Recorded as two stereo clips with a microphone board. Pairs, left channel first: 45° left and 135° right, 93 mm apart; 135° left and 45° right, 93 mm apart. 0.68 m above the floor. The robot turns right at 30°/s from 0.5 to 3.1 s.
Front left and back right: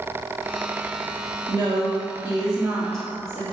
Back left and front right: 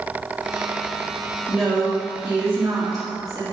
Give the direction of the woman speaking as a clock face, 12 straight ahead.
4 o'clock.